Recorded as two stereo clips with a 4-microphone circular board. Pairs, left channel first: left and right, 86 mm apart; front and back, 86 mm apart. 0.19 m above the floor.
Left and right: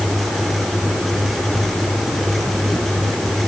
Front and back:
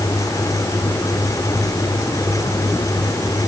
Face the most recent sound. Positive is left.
No sound to turn to.